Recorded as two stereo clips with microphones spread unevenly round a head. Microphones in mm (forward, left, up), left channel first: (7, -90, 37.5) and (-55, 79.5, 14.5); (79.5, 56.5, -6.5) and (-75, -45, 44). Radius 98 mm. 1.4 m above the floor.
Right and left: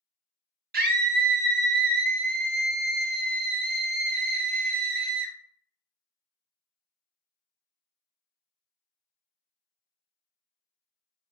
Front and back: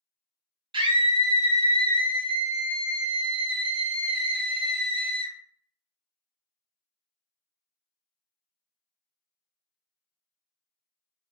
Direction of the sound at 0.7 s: 145° left.